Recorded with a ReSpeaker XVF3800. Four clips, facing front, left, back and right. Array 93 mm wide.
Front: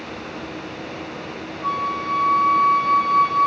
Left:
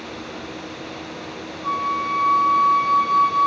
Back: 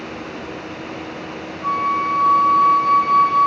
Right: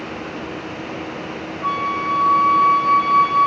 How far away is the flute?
About 3.5 m.